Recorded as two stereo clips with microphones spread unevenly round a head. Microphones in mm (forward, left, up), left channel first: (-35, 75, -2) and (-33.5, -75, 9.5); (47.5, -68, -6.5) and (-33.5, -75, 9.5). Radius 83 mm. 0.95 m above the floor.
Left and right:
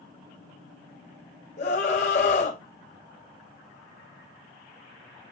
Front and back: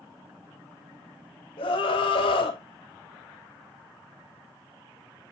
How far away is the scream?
About 4.5 m.